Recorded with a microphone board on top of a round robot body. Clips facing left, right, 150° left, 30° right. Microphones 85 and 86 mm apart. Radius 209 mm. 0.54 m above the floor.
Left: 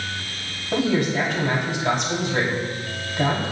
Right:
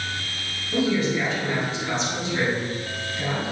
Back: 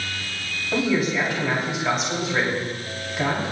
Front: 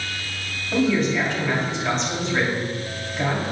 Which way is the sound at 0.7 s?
65° left.